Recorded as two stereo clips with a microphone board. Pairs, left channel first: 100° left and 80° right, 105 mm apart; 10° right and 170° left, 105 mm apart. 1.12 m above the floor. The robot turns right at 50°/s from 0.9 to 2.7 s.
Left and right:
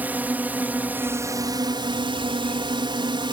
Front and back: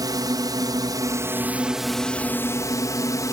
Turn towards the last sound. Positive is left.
turn(degrees=-60)